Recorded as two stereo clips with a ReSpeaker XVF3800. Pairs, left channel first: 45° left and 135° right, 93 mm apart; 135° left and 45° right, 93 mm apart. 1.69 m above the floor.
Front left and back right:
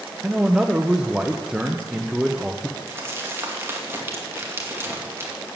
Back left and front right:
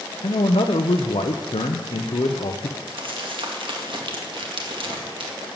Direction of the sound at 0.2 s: 145° left.